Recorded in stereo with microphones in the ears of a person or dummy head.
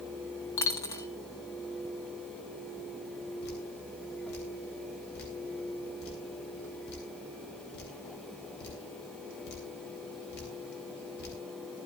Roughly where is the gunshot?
I don't hear a gunshot.